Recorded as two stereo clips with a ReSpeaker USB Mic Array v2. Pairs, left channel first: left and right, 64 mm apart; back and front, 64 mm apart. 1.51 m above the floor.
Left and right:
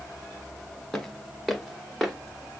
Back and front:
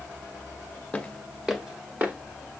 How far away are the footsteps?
About 1.5 m.